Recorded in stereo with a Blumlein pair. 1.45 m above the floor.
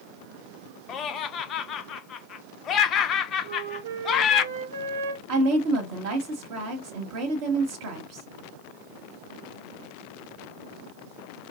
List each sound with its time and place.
0.9 s laughter: 30° left, 0.6 m
3.4 s a flute: 65° right, 0.7 m
5.3 s a woman speaking: 50° right, 1.1 m